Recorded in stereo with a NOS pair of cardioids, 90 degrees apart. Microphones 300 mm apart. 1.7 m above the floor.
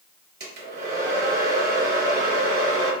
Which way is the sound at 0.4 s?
35° right.